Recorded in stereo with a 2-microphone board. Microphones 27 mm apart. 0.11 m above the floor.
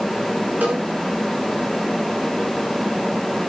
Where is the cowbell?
85° right, 7.5 m.